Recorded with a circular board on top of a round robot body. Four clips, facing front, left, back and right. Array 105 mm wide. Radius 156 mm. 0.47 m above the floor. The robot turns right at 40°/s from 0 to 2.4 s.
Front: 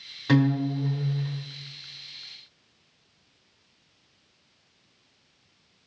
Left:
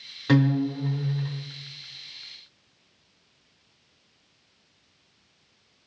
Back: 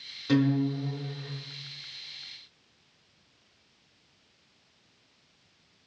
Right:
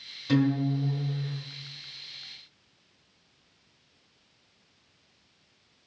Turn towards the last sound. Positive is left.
turn(degrees=140)